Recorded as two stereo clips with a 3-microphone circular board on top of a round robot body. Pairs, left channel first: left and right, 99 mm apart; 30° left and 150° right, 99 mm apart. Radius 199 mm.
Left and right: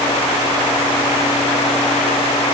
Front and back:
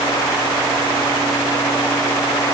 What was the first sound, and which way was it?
Only background noise.